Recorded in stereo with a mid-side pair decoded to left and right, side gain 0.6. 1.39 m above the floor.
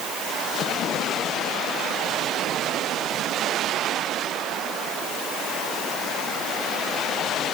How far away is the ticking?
I don't hear ticking.